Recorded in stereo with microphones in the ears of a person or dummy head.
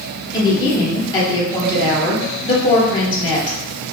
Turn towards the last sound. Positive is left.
turn(degrees=20)  # may be behind; listen again after turning